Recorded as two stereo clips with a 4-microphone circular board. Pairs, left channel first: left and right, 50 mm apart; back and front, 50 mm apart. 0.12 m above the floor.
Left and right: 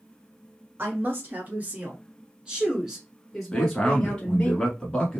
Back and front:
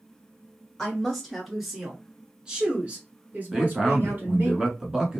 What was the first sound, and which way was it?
A woman speaking, 100° right.